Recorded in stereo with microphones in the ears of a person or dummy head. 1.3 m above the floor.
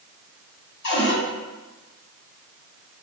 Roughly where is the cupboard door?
Left.